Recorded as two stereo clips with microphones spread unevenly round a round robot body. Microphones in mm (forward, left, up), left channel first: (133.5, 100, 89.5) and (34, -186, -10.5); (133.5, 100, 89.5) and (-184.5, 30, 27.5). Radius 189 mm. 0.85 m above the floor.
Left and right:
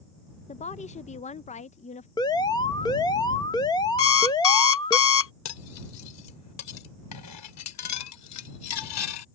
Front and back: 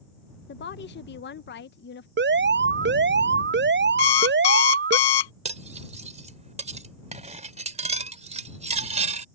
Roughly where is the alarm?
Behind.